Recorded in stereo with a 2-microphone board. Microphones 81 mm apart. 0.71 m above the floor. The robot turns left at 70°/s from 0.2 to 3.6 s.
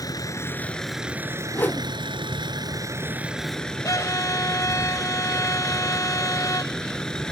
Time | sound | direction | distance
0.0 | a vehicle | 50° left | ?
1.5 | a whoosh | 25° left (ahead or behind) | ?
3.8 | a violin | 45° left (ahead or behind) | ?